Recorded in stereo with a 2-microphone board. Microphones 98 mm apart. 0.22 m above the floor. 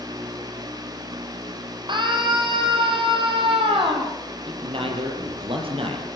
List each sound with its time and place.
1.9 s a scream: 50° right (ahead or behind), 8 m; by 4.1 s 60° right (ahead or behind), 9 m
4.5 s a man speaking: 65° right (ahead or behind), 6.5 m